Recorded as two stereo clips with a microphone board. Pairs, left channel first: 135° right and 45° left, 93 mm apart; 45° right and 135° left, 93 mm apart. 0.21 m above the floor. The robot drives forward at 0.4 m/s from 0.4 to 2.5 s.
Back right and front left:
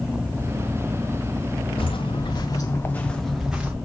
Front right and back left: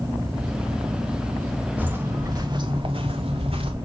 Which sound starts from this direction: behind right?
Footsteps, at 1.8 s.